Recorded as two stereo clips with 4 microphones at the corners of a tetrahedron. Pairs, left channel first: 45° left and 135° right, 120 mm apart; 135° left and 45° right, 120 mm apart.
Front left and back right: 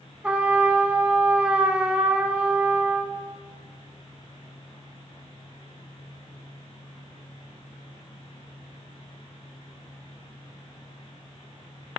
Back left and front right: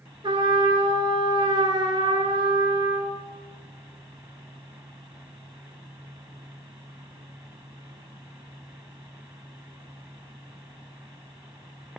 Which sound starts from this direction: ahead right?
A trumpet, at 0.2 s.